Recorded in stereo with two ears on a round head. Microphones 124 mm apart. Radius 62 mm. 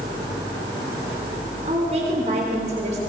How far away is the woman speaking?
About 4 m.